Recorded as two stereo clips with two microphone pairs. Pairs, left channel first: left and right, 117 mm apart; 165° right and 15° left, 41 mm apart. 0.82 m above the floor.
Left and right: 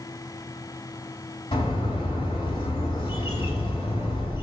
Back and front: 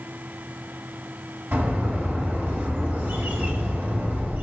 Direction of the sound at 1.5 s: 45° left.